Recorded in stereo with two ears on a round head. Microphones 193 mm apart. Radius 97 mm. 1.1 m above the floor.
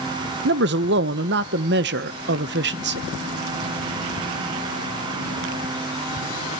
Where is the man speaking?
55° right (ahead or behind), 0.7 m.